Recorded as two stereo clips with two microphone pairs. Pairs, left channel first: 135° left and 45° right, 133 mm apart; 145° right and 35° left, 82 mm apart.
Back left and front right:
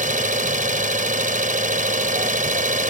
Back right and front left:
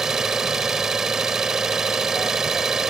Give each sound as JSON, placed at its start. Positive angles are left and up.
{"t": 0.0, "sound": "an engine running", "azimuth_deg": -50}